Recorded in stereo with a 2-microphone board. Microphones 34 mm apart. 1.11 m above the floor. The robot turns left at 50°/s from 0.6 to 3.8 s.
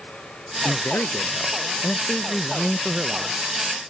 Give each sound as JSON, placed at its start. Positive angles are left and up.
{"t": 0.7, "sound": "a man speaking", "azimuth_deg": 95}